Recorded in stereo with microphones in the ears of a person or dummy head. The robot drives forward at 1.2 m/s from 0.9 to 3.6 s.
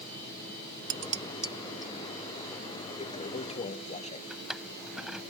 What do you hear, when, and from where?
0.9 s dishes clattering: 45° right (ahead or behind); by 1.9 s 20° right (ahead or behind)
3.0 s a toilet flushing: 30° left (ahead or behind)
4.3 s a drawer: 5° right (ahead or behind)